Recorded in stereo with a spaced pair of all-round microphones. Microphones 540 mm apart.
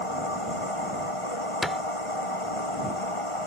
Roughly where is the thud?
Centre.